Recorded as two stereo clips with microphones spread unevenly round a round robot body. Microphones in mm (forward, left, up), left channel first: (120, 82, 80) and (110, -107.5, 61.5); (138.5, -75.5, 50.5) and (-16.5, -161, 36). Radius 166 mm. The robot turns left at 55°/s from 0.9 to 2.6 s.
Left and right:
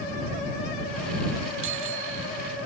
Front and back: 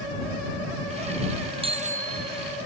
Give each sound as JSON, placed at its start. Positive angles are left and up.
{"t": 1.6, "sound": "a bicycle bell", "azimuth_deg": -90}